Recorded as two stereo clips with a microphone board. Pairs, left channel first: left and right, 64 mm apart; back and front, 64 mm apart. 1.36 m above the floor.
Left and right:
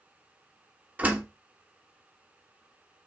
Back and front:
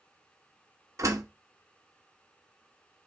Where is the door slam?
30° right, 1.2 m.